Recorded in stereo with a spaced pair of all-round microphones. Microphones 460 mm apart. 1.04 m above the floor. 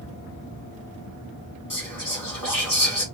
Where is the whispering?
45° left (ahead or behind), 1.9 m.